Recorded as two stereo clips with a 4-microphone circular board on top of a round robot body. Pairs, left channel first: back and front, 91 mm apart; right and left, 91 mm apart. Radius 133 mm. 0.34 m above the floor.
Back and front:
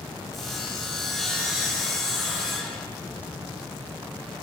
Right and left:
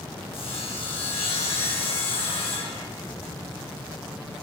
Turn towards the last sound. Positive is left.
turn(degrees=-90)